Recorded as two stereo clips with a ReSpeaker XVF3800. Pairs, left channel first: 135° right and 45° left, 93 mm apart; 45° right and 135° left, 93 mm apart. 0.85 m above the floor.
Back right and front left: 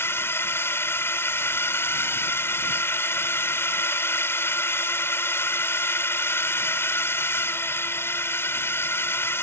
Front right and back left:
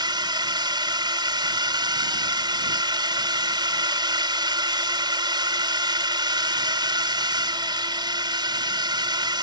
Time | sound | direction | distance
0.0 | a drone | 165° left | ?